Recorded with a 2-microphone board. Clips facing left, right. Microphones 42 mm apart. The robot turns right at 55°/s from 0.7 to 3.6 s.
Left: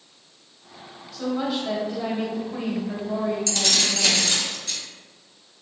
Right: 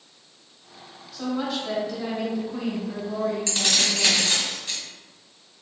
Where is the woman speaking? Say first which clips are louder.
Left 2 dB; 10° right, 1.1 m; by 4.3 s 125° left, 1.1 m.